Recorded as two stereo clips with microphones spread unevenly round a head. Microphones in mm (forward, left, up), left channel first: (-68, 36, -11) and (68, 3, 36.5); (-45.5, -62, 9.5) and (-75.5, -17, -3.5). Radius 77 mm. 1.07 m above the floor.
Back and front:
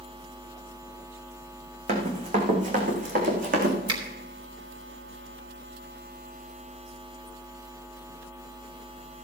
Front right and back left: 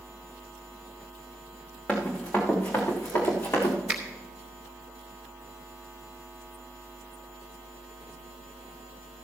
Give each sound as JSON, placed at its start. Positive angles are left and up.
{"t": 1.9, "sound": "running footsteps", "azimuth_deg": 15, "distance_m": 3.0}
{"t": 3.9, "sound": "a finger snap", "azimuth_deg": 50, "distance_m": 3.5}